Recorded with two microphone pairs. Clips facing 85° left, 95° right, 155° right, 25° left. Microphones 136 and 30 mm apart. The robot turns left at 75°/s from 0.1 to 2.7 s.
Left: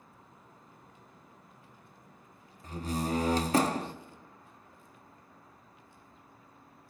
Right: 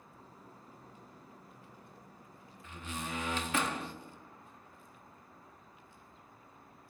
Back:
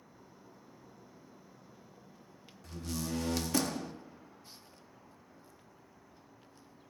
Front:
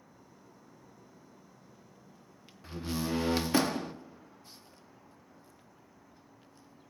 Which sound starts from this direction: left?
A door slam, at 2.6 s.